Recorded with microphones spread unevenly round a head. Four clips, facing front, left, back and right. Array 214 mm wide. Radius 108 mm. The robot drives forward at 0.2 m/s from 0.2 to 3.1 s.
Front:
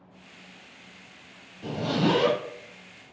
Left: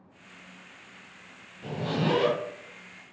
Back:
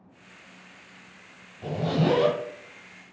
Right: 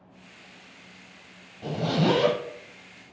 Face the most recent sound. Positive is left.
turn(degrees=-160)